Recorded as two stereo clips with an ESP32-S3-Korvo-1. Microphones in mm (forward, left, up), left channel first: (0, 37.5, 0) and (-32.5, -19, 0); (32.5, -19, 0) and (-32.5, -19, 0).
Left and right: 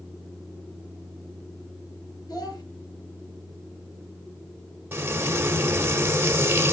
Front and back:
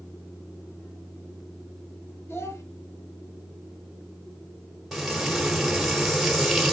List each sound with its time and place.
2.3 s a child speaking: 45° left, 5.5 m
4.9 s frying: 95° right, 1.7 m